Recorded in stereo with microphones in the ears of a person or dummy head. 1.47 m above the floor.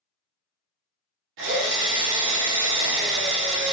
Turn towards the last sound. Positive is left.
turn(degrees=-75)  # may be behind; listen again after turning